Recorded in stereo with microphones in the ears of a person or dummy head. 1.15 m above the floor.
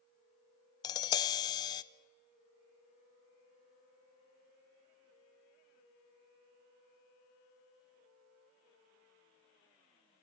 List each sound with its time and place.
0.8 s tapping: 20° left (ahead or behind), 0.5 m